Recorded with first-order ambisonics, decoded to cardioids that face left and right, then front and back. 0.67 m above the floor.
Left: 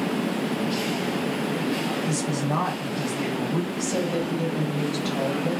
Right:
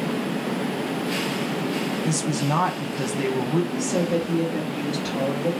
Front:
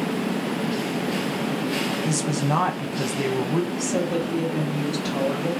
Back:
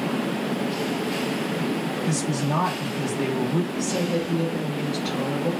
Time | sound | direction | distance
2.0 | a woman speaking | 40° right | 0.5 m
3.7 | a woman speaking | 45° right | 1.4 m